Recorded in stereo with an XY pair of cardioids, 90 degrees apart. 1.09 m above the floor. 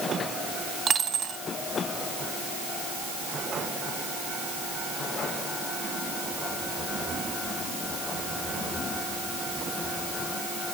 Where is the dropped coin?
60° right, 2.5 m.